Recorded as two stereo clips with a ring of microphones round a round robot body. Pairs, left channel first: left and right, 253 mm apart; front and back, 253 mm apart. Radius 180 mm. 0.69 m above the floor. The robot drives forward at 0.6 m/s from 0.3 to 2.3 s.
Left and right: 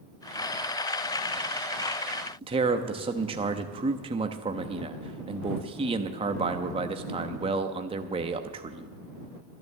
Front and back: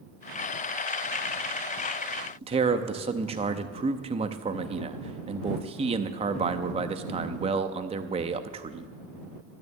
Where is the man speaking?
135° right, 0.5 m.